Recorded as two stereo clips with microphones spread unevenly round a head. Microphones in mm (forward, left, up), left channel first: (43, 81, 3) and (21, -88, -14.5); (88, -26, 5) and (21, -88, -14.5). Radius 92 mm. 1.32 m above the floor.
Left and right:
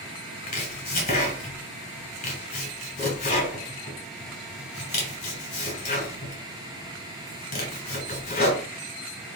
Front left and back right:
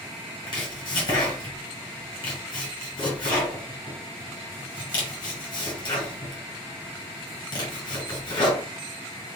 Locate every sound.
0.5 s chopping: 45° left, 2 m